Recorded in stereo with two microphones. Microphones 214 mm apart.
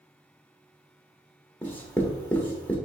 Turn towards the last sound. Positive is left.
turn(degrees=10)  # may be behind; listen again after turning